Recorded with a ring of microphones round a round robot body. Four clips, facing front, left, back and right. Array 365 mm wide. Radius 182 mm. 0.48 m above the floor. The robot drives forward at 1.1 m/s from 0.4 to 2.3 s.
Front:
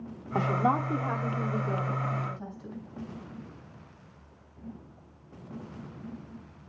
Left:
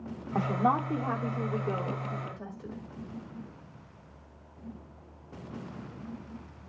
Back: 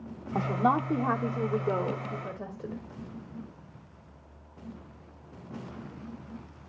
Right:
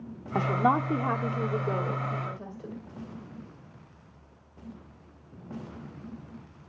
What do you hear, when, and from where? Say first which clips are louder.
0.3 s a woman speaking: right 2 dB, even; 65° right, 1.1 m; by 2.8 s 165° right, 2 m